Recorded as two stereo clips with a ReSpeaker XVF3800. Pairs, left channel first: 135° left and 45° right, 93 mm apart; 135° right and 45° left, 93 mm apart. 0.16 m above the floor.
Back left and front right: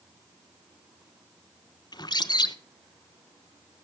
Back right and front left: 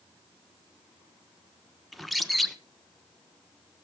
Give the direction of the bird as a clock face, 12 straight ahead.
7 o'clock.